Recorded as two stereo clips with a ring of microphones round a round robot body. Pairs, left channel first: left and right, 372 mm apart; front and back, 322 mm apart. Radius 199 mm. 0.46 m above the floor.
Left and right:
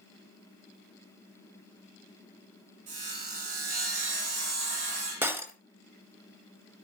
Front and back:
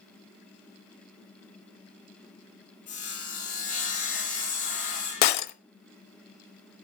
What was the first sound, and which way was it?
Sawing, 60° right.